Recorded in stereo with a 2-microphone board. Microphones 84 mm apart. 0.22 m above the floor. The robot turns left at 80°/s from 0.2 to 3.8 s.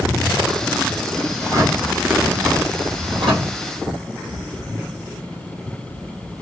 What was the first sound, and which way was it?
A drawer, 55° left.